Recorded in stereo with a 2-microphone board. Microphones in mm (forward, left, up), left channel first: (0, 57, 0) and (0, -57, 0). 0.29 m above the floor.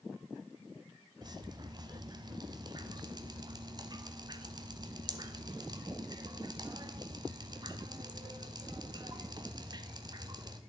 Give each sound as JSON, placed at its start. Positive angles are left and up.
{"t": 1.2, "sound": "dripping", "side_deg": -40, "distance_m": 0.7}